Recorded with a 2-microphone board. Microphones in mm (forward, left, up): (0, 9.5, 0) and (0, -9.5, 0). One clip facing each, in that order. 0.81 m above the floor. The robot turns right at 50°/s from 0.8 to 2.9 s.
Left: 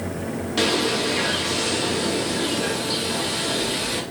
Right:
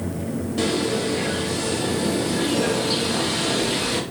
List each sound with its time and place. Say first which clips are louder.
0.6 s a bird: left 2 dB; 95° left, 0.8 m; by 4.0 s 160° right, 0.8 m